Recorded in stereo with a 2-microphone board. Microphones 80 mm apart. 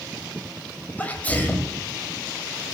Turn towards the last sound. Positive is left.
turn(degrees=20)  # may be behind; listen again after turning